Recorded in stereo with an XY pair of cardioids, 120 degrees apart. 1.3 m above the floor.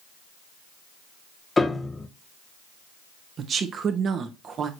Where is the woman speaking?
45° right, 1.1 m.